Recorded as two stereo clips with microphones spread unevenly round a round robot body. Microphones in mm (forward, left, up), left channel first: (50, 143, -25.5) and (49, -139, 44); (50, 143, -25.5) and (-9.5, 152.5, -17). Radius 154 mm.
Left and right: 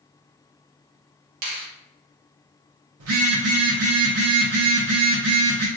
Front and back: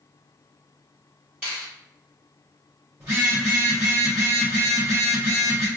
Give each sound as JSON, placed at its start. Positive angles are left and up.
{"t": 1.4, "sound": "a finger snap", "azimuth_deg": -110, "distance_m": 0.9}
{"t": 3.0, "sound": "a phone buzzing", "azimuth_deg": -125, "distance_m": 0.7}